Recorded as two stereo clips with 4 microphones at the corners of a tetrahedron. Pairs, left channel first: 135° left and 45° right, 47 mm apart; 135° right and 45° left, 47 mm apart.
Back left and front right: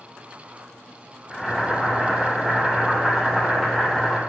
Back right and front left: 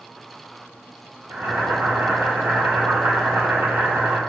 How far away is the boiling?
About 2.5 m.